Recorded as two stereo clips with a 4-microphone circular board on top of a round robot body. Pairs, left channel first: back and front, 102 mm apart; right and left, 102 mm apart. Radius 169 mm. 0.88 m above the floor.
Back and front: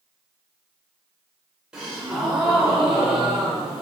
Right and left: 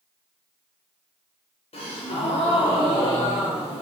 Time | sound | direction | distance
1.7 | a gasp | 85° right | 0.7 m